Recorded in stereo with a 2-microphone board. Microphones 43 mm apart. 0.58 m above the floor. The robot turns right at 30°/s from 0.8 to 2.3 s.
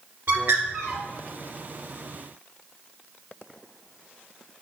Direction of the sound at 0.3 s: 65° right (ahead or behind).